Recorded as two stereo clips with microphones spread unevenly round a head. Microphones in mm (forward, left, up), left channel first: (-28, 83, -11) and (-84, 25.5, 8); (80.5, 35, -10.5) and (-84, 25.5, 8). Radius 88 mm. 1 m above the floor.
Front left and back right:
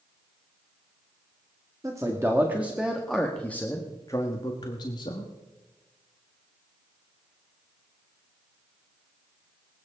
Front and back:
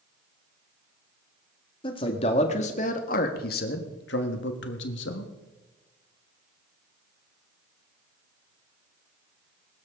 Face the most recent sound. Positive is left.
turn(degrees=0)